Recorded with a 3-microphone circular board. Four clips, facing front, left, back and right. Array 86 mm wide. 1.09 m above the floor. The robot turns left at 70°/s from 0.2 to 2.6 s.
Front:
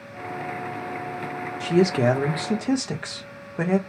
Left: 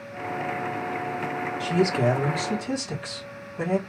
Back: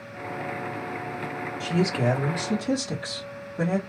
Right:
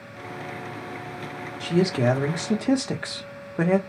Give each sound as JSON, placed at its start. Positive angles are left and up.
{"t": 1.6, "sound": "a man speaking", "azimuth_deg": 0, "distance_m": 1.0}